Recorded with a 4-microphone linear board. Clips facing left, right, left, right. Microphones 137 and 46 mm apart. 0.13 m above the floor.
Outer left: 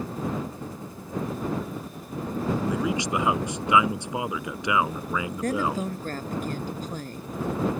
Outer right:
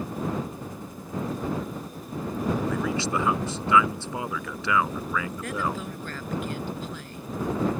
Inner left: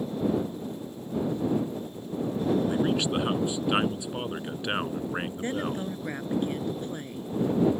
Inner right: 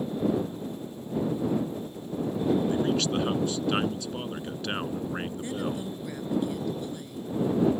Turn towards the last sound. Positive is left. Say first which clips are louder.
# outer left 4 dB, inner left 2 dB
turn(degrees=45)  # may be behind; listen again after turning